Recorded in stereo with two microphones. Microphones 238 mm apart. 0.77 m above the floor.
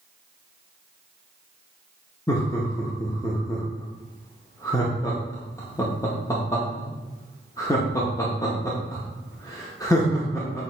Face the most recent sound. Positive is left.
turn(degrees=15)  # may be behind; listen again after turning